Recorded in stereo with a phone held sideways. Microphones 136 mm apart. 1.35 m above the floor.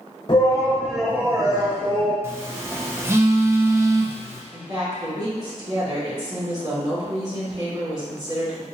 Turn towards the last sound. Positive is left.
turn(degrees=-35)  # may be behind; listen again after turning